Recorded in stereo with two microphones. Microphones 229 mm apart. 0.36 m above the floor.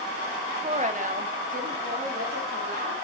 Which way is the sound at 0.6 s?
30° right (ahead or behind).